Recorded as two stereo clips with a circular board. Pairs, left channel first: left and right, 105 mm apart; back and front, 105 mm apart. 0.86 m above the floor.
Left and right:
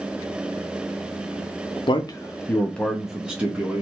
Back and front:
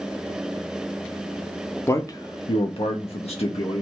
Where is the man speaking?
120° left, 0.6 m; by 3.8 s 160° right, 1.0 m.